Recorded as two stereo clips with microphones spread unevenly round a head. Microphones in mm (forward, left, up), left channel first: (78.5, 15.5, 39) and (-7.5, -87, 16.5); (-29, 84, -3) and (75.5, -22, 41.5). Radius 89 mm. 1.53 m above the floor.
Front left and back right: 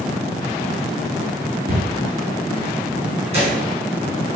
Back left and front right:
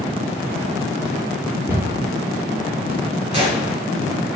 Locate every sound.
1.7 s a cupboard door: 125° right, 4 m
3.3 s a gunshot: 90° right, 3 m